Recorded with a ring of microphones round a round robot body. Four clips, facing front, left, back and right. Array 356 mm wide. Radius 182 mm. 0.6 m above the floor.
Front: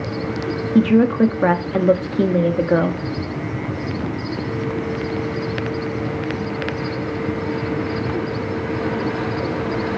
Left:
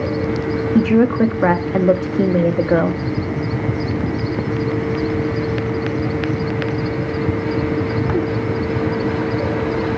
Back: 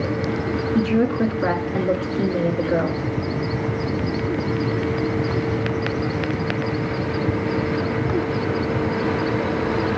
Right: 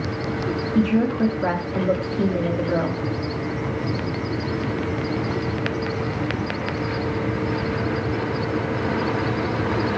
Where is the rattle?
I don't hear a rattle.